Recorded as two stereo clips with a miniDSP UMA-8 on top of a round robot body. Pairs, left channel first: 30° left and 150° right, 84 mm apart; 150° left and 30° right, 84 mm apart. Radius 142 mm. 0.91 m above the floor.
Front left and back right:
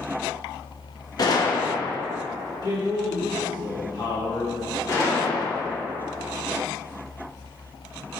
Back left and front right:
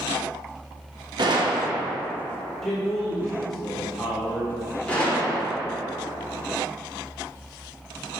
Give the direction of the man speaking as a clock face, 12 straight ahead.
10 o'clock.